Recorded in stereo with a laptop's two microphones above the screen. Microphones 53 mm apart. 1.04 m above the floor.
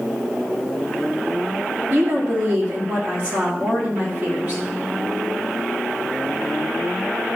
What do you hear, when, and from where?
1.9 s a woman speaking: 30° right (ahead or behind), 2.5 m